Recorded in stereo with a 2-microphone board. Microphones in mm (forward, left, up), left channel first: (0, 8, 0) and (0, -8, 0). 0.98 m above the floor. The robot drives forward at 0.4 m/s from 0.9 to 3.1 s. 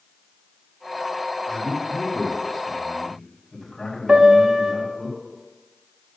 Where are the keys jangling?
No keys jangling in this recording.